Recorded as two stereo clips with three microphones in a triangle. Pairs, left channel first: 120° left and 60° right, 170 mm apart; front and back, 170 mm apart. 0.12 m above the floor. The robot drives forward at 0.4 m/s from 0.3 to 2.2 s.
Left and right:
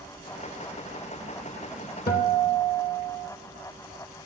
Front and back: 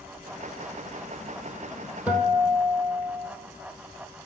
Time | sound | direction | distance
2.1 | a guitar | 100° left | 1.0 m